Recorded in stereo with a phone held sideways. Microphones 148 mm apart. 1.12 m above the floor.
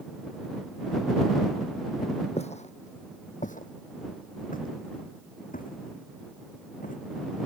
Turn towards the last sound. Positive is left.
turn(degrees=65)  # may be behind; listen again after turning